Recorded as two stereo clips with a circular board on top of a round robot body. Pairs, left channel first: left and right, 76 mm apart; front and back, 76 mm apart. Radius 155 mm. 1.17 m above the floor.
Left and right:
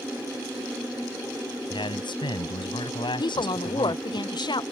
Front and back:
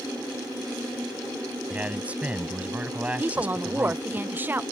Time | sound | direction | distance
1.7 | a man speaking | 105° left | ?
3.2 | a woman speaking | 115° left | ?